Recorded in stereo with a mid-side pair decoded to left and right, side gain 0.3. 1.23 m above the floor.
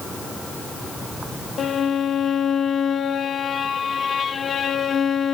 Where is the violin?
70° left, 0.8 m.